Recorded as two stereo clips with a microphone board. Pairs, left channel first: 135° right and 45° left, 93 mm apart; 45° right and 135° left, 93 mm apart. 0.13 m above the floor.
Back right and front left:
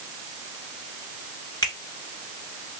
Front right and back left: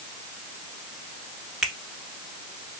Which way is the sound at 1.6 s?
140° right.